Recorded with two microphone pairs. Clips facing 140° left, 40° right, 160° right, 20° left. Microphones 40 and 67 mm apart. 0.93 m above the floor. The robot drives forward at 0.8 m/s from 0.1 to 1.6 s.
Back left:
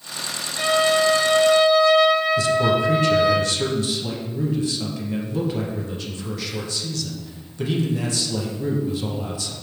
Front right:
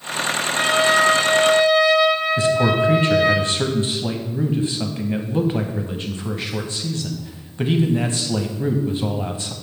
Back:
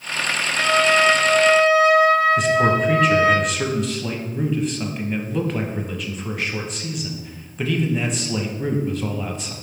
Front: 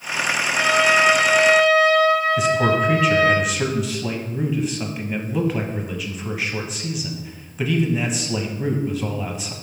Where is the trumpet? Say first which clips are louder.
Front right 1 dB, even; 40° right, 1.2 m; by 3.4 s 100° right, 1.0 m.